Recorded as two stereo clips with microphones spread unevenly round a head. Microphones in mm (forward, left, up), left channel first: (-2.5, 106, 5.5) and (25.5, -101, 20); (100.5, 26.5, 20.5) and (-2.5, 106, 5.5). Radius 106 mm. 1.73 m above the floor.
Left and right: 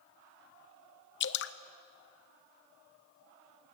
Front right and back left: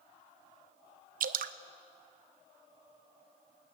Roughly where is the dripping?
Behind left.